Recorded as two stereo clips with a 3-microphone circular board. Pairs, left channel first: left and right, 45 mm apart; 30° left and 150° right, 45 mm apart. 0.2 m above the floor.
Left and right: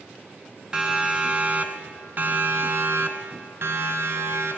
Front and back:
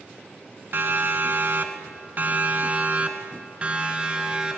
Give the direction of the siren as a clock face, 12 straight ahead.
5 o'clock.